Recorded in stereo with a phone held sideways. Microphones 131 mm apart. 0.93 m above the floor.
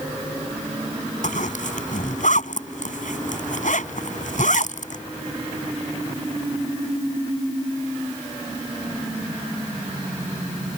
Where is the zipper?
75° left (ahead or behind).